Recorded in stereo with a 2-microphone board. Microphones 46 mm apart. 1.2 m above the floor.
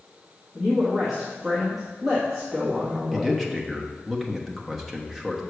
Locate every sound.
0.6 s a woman speaking: 5° right (ahead or behind), 1.6 m
3.1 s a man speaking: 5° right (ahead or behind), 1.1 m